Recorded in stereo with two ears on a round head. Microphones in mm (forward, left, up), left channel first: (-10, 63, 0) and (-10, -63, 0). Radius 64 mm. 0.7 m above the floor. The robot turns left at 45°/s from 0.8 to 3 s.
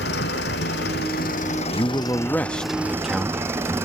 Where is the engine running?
85° left; by 3.9 s 15° right.